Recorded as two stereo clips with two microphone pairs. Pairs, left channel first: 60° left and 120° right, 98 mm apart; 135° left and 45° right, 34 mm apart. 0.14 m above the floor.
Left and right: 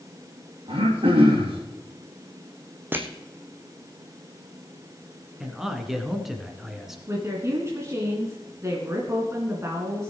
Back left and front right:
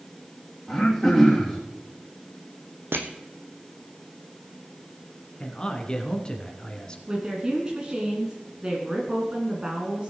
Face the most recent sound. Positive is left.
turn(degrees=-90)